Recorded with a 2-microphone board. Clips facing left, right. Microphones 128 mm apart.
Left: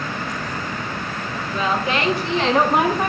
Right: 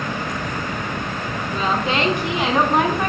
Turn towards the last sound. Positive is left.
turn(degrees=20)  # may be behind; listen again after turning